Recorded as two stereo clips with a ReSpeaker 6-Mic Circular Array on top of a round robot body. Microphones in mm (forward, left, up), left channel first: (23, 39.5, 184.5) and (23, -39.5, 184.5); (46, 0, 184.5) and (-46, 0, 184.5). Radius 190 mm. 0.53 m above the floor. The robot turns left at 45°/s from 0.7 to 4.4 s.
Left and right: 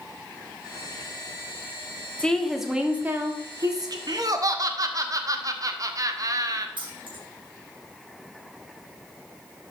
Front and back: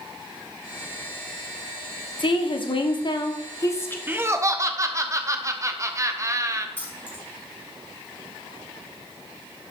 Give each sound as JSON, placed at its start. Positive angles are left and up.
{"t": 2.2, "sound": "a woman speaking", "azimuth_deg": 15, "distance_m": 1.8}
{"t": 4.1, "sound": "laughter", "azimuth_deg": -115, "distance_m": 1.2}
{"t": 6.8, "sound": "keys jangling", "azimuth_deg": -70, "distance_m": 3.5}